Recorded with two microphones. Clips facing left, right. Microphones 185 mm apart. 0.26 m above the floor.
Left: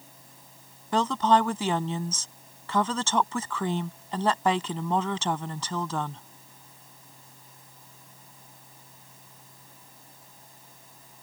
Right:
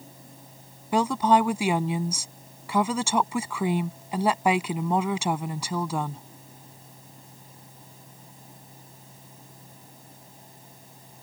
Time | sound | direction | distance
0.9 | a woman speaking | 10° right (ahead or behind) | ?